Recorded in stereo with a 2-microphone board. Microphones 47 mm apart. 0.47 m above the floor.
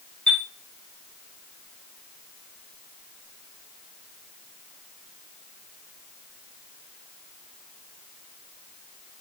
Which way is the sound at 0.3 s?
20° left (ahead or behind).